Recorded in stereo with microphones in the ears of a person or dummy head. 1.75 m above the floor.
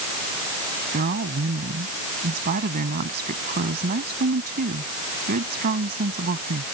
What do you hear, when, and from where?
0.9 s a woman speaking: 45° right (ahead or behind)